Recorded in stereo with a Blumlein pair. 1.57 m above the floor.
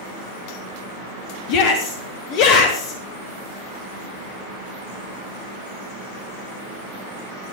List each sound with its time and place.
1.5 s a shout: 45° left, 1.2 m